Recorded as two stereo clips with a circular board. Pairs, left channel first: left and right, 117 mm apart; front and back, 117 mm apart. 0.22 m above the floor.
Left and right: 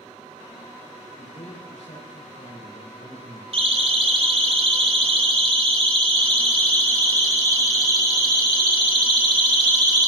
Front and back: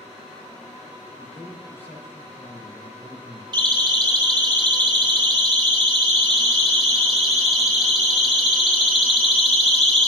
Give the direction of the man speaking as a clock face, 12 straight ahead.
10 o'clock.